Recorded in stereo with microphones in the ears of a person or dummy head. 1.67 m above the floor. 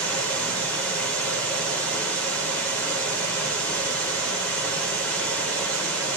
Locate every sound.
0.0 s running water: 5° left (ahead or behind), 5.5 m